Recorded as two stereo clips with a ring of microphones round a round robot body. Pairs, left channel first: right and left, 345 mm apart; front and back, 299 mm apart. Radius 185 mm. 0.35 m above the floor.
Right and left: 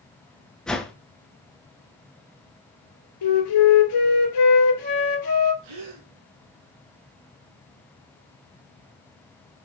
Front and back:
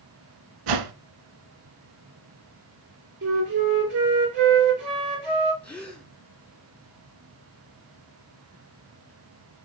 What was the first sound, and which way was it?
A whoosh, straight behind.